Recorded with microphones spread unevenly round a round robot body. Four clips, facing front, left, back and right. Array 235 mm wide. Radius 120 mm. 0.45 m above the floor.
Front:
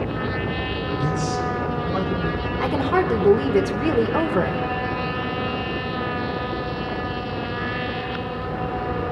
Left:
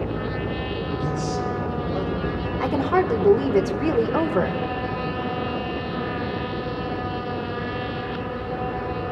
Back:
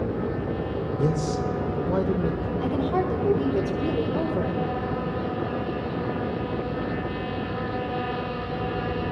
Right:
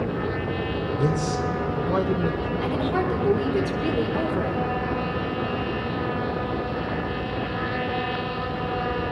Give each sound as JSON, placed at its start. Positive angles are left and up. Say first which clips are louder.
{"t": 1.0, "sound": "a man speaking", "louder": "right 3 dB, even", "azimuth_deg": -140, "distance_m": 1.4}
{"t": 2.6, "sound": "a woman speaking", "louder": "left 5 dB, front 5 dB", "azimuth_deg": 50, "distance_m": 1.2}